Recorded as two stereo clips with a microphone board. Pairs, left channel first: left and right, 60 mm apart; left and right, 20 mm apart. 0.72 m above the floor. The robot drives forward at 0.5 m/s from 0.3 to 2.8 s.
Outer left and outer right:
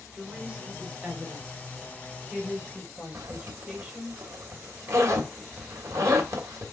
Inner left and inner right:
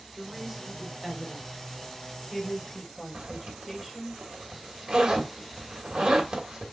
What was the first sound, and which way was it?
A woman speaking, 20° right (ahead or behind).